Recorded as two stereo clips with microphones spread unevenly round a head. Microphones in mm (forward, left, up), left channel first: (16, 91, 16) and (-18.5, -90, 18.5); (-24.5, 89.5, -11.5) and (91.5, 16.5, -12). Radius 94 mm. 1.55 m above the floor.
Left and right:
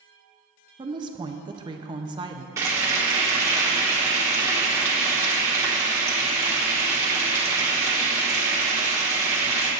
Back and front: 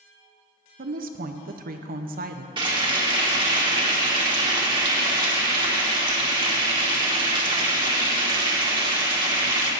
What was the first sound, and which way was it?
A woman speaking, 35° right.